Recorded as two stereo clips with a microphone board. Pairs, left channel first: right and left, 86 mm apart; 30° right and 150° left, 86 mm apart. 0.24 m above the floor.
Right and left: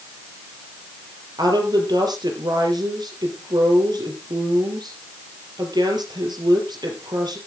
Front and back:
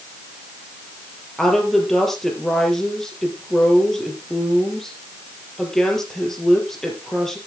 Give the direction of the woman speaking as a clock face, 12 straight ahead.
10 o'clock.